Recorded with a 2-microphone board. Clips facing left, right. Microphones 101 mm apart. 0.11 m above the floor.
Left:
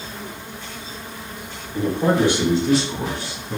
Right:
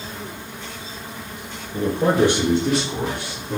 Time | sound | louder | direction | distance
1.7 | a man speaking | right 1 dB | 45° right (ahead or behind) | 1.7 m